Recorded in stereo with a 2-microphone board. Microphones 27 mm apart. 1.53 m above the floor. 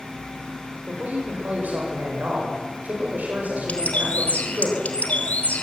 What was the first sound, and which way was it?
A man speaking, 70° right (ahead or behind).